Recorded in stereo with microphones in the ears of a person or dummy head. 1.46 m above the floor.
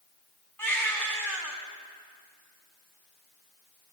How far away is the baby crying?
About 4 m.